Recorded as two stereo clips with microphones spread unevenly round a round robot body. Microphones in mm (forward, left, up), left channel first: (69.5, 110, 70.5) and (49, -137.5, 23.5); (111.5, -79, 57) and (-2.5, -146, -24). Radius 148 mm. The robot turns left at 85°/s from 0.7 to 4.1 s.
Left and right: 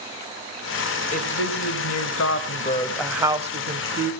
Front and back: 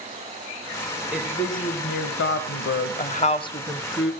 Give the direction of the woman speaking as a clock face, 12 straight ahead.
7 o'clock.